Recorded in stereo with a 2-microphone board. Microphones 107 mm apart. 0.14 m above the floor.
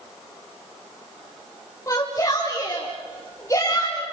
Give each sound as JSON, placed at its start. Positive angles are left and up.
{"t": 1.9, "sound": "a shout", "side_deg": 30, "distance_m": 6.0}